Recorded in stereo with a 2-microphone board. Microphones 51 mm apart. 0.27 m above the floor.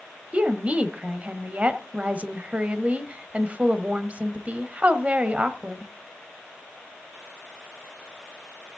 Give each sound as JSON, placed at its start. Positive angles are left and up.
{"t": 0.3, "sound": "a woman speaking", "side_deg": -30, "distance_m": 1.0}